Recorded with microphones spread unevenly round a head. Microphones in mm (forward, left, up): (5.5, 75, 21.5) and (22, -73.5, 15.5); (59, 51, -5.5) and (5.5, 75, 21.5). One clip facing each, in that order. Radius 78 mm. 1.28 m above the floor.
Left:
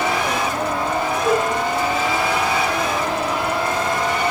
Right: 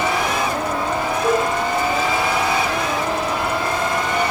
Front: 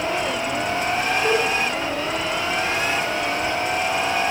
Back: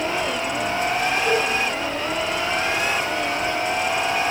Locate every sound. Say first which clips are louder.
1.2 s a cowbell: right 1 dB, front 1 dB; 80° right, 4.5 m